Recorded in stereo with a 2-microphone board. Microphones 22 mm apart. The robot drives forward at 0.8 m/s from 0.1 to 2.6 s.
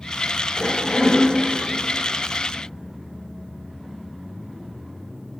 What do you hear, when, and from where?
0.6 s a cough: 20° left (ahead or behind), 1.9 m; by 1.2 s 15° left (ahead or behind), 2 m